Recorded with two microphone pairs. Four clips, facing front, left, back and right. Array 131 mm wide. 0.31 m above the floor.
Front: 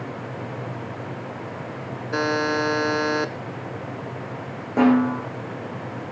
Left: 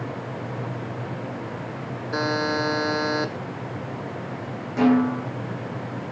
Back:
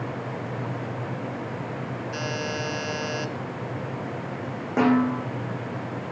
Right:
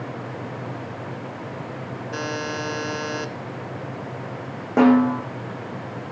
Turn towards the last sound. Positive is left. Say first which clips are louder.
# right 3 dB, front 3 dB
turn(degrees=-90)